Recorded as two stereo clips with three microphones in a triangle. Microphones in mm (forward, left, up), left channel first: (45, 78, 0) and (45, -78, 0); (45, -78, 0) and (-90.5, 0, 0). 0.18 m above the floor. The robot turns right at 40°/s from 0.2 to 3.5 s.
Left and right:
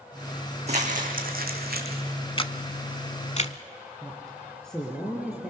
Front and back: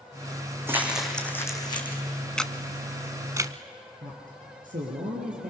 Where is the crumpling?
135° right, 2.5 m; by 2.0 s 80° right, 2.5 m.